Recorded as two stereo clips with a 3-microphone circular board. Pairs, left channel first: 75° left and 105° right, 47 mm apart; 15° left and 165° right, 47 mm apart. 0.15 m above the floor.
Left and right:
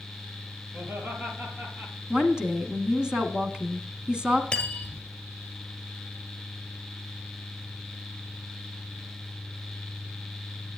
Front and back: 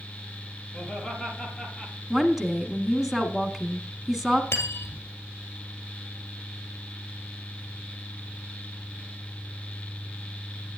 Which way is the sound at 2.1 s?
105° right.